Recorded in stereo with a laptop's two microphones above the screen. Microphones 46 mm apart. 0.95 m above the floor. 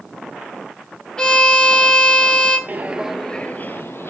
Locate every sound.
1.2 s a violin: 15° left (ahead or behind), 1.9 m
2.7 s footsteps: 35° right (ahead or behind), 1.2 m; by 4.1 s 60° left (ahead or behind), 1.7 m